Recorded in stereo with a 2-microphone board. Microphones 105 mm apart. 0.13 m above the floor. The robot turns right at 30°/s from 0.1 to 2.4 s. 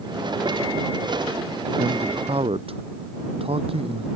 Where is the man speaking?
75° right (ahead or behind); by 4.1 s 65° right (ahead or behind).